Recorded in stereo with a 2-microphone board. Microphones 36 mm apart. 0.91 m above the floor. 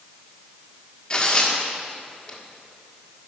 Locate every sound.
1.1 s tearing paper: 25° left (ahead or behind), 1.3 m